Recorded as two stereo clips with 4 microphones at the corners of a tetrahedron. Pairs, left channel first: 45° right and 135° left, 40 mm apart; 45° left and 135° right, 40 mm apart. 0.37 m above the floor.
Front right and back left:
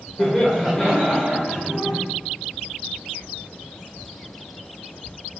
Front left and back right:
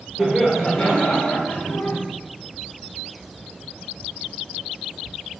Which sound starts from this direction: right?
Laughter, at 0.2 s.